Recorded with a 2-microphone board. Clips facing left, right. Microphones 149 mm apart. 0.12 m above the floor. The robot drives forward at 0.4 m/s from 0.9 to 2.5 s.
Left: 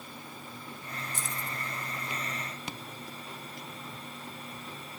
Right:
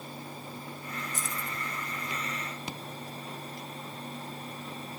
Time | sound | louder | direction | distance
1.1 | keys jangling | right 1 dB | 45° right (ahead or behind) | 1.3 m